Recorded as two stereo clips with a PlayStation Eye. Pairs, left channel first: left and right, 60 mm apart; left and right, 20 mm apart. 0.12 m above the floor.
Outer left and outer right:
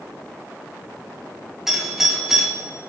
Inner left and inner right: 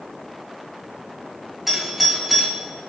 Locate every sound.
1.7 s a doorbell: 5° right (ahead or behind), 4 m